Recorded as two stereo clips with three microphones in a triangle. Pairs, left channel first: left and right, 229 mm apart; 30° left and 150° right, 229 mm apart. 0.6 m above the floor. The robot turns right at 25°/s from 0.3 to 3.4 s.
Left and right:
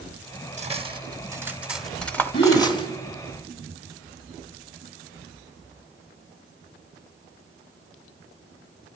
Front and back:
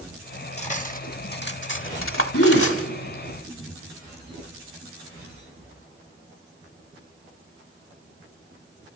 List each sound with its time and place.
0.6 s cutlery clinking: 30° right, 1.0 m; by 2.9 s 25° left, 1.0 m
2.3 s a gasp: 50° left, 8.5 m; by 2.7 s 60° left, 8.5 m